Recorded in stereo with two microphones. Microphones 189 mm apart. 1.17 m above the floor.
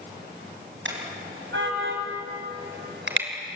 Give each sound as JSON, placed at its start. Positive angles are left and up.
{"t": 0.8, "sound": "a car horn", "side_deg": -85, "distance_m": 5.0}